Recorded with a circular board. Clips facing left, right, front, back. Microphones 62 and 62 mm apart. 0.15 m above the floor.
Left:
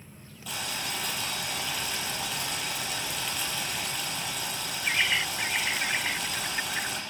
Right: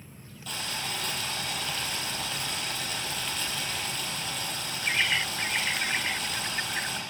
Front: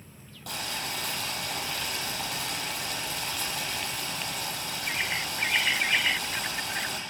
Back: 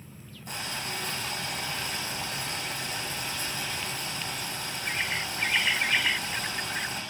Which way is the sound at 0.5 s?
5° left.